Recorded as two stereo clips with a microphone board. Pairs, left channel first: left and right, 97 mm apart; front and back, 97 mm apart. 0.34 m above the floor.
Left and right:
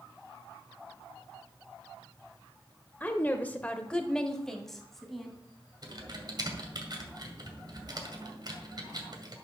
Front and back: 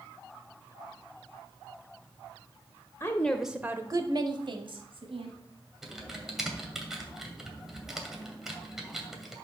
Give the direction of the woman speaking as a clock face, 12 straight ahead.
11 o'clock.